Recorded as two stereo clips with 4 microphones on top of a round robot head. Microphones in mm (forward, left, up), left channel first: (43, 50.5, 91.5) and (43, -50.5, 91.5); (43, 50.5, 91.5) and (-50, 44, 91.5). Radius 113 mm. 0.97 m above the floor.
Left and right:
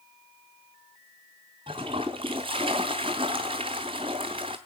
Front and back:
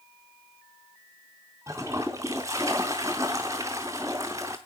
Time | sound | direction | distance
1.7 | a toilet flushing | 115° right | 0.6 m